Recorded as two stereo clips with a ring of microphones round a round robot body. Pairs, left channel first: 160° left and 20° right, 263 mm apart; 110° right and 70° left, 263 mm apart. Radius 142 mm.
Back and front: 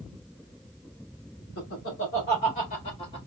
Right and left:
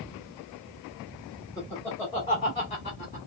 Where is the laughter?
170° left, 1.6 m; by 3.3 s 135° right, 1.3 m.